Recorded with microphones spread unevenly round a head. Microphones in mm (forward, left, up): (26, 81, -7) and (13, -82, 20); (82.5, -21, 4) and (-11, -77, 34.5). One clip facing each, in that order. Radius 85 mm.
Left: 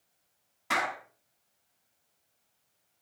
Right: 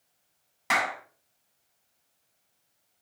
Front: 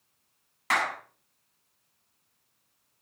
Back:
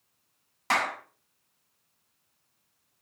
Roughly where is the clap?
Right.